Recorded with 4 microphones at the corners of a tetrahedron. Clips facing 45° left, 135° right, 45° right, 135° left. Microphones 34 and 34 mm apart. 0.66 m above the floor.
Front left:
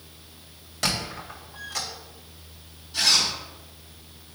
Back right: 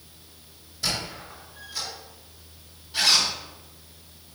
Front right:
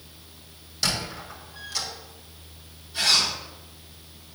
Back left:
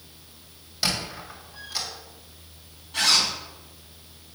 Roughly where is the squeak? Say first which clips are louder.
Front left 2 dB, even; ahead left.